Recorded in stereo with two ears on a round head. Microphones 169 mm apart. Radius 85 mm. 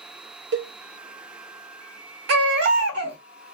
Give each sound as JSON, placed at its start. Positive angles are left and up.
{"t": 0.5, "sound": "a cowbell", "side_deg": -60, "distance_m": 0.6}
{"t": 2.3, "sound": "a baby crying", "side_deg": -60, "distance_m": 0.9}